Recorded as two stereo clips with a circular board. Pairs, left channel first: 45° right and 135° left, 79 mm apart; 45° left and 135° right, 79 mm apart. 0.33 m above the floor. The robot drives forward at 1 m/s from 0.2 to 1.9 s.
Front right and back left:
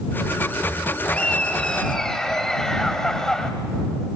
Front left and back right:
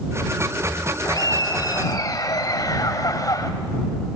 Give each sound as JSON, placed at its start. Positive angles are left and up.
{"t": 1.1, "sound": "laughter", "azimuth_deg": 25, "distance_m": 2.5}